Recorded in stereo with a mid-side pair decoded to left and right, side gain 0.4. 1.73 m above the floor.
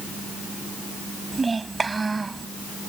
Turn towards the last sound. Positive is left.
turn(degrees=-30)